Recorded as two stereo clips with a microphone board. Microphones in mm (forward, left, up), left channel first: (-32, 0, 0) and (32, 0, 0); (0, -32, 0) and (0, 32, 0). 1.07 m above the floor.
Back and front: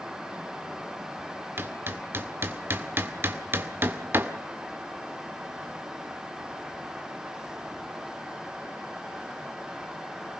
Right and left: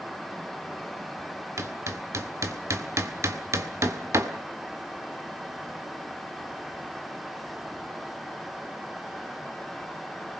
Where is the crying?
No crying in this recording.